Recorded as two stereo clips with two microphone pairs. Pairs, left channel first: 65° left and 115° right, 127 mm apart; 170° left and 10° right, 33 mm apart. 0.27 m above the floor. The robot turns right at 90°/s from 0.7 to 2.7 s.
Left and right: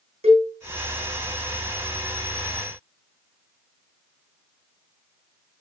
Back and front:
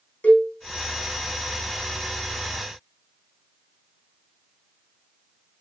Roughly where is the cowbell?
Behind right.